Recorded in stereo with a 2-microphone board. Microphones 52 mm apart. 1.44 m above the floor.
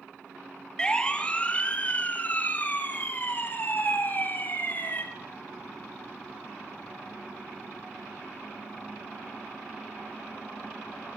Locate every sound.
0.8 s a siren: 15° left (ahead or behind), 2 m; by 5.0 s 40° left (ahead or behind), 5 m